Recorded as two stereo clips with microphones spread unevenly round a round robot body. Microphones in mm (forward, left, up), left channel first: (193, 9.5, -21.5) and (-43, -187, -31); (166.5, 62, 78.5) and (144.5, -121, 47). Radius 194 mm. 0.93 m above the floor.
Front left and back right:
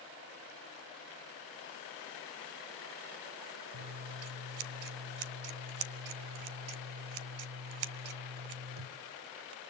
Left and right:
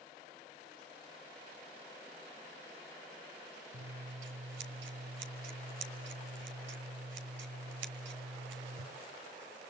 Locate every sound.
3.7 s scissors: 130° right, 1.5 m